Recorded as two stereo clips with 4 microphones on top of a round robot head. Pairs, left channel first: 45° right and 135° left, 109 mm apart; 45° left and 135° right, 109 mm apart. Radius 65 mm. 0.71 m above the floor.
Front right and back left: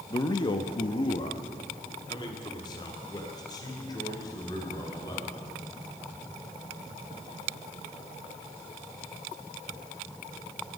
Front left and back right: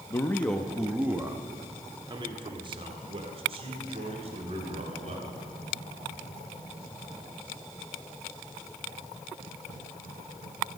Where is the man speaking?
5° right, 0.8 m; by 5.3 s 105° right, 3.5 m.